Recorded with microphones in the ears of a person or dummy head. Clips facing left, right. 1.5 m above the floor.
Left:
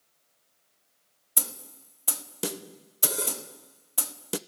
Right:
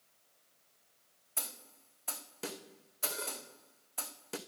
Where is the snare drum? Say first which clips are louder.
Left 8 dB; 55° left (ahead or behind), 0.7 m.